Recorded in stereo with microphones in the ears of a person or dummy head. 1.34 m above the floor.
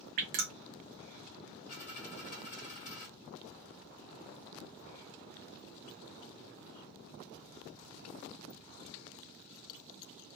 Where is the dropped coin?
35° left (ahead or behind), 1.1 m.